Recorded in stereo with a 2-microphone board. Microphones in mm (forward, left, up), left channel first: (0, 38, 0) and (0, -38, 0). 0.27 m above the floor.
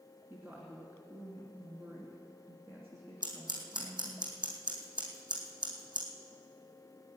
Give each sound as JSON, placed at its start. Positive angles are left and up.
{"t": 0.3, "sound": "a woman speaking", "side_deg": -25, "distance_m": 2.5}
{"t": 3.2, "sound": "scissors", "side_deg": -85, "distance_m": 3.0}